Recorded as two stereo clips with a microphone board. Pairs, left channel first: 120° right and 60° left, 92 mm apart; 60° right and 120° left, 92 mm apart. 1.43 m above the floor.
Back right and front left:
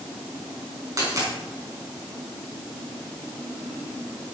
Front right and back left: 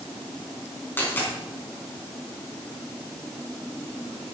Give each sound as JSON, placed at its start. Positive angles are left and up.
{"t": 1.0, "sound": "a dropped coin", "azimuth_deg": 10, "distance_m": 4.0}